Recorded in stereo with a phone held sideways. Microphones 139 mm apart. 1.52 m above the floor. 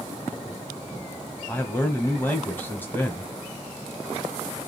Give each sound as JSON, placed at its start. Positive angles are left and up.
{"t": 1.5, "sound": "a man speaking", "side_deg": 15, "distance_m": 0.8}